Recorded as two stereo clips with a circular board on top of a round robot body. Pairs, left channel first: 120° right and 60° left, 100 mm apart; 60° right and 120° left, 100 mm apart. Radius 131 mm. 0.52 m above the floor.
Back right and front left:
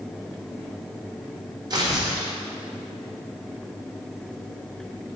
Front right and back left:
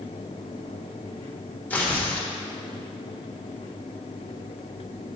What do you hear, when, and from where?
1.7 s tearing paper: 15° left, 1.6 m